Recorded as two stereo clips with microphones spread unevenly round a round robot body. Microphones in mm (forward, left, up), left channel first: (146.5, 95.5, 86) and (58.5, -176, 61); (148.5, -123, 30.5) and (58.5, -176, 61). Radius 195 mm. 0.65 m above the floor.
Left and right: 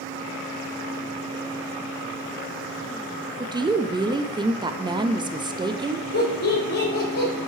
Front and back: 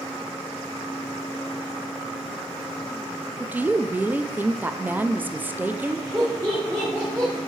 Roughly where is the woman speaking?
Ahead right.